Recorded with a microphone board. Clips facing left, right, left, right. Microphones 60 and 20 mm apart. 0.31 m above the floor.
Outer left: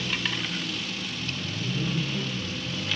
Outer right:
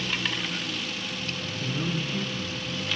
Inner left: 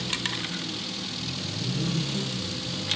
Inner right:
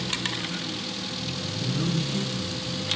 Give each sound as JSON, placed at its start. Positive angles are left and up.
{"t": 1.6, "sound": "a man speaking", "side_deg": -40, "distance_m": 3.5}